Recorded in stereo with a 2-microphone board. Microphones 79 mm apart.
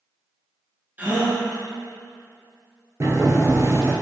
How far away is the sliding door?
About 0.6 m.